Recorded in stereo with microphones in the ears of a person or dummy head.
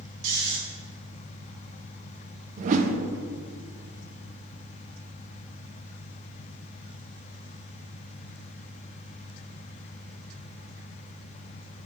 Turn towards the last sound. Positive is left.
turn(degrees=-45)  # may be behind; listen again after turning